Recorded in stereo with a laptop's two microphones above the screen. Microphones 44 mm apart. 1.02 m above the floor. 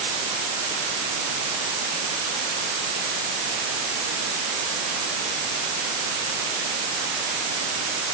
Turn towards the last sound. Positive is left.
No sound to turn to.